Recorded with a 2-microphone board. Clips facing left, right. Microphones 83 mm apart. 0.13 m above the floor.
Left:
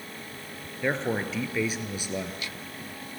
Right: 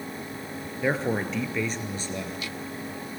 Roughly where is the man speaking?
Centre.